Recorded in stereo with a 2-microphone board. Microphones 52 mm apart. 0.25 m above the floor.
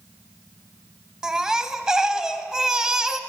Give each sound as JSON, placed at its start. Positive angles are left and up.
{"t": 1.2, "sound": "a baby crying", "side_deg": -10, "distance_m": 0.6}